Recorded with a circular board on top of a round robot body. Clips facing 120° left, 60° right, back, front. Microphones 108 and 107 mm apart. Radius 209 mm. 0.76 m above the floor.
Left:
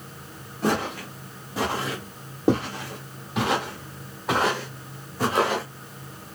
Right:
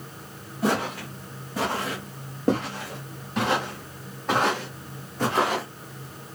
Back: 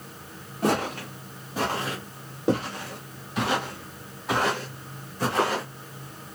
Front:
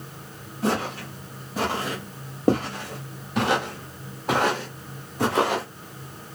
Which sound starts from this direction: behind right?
Footsteps, at 0.6 s.